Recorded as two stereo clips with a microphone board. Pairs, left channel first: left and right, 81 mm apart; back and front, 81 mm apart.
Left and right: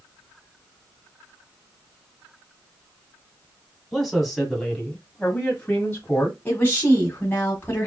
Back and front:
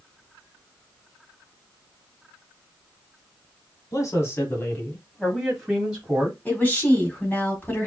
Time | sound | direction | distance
3.9 | a man speaking | straight behind | 2 m
6.5 | a woman speaking | 130° left | 1.5 m